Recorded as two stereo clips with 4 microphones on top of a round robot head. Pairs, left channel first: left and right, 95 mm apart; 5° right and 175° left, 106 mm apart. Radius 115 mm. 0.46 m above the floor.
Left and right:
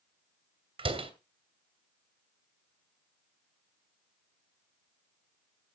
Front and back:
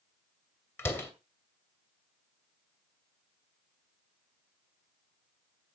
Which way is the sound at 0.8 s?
75° right.